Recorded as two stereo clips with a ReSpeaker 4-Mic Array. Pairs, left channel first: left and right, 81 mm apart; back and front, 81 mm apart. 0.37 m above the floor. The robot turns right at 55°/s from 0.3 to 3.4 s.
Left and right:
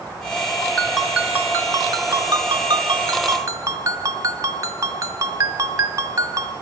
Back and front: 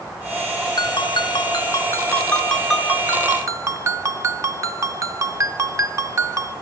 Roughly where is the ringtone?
Behind.